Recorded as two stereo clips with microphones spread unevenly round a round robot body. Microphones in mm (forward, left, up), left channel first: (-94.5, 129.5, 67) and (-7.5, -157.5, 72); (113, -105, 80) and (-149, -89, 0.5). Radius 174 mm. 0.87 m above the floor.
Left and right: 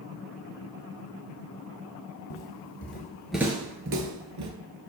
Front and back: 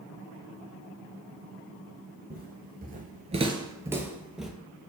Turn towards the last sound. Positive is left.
turn(degrees=-80)